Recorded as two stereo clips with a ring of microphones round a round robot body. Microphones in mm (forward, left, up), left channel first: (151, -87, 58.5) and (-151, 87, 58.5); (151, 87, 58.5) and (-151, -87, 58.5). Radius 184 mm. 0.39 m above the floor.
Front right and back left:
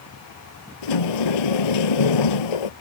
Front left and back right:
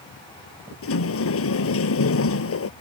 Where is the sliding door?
25° right.